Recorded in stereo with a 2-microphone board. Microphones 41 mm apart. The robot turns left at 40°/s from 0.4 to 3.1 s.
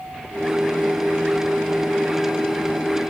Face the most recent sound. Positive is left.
No sound to turn to.